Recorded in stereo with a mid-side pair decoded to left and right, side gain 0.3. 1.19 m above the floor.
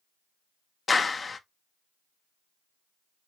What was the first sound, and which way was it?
A clap, 45° left.